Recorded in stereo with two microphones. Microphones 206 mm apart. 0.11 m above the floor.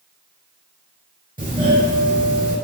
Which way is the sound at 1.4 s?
45° right (ahead or behind).